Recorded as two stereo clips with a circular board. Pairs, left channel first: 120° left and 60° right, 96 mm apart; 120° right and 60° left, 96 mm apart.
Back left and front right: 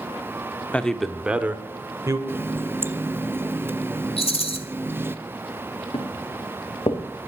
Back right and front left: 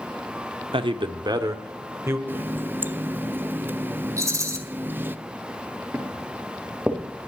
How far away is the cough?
No cough in this recording.